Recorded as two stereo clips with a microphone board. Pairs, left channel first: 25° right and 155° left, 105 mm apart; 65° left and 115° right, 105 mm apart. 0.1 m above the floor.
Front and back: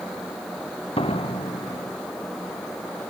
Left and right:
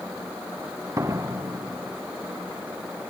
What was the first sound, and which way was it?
A door slam, 50° right.